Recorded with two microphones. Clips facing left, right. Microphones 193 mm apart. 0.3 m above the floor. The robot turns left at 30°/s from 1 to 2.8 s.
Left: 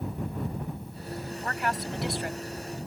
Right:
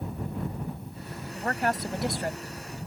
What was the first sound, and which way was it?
A woman speaking, 65° right.